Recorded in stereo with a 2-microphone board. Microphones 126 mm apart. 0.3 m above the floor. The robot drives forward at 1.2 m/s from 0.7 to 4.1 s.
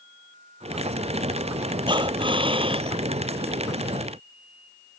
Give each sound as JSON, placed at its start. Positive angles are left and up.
{"t": 1.9, "sound": "breathing", "side_deg": -40}